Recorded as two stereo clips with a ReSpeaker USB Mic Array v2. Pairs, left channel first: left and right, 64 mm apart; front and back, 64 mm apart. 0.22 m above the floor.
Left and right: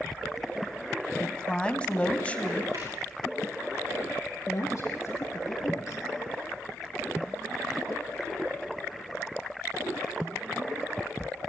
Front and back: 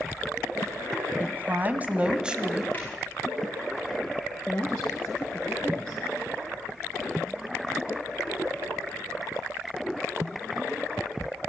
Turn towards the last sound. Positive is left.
turn(degrees=75)